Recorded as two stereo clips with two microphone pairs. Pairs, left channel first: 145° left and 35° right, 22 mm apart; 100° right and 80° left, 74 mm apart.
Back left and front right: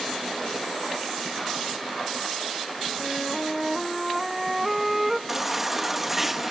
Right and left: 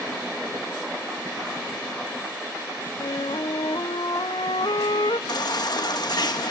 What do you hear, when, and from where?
3.0 s a flute: 105° right, 0.7 m
5.3 s a baby crying: 105° right, 1.1 m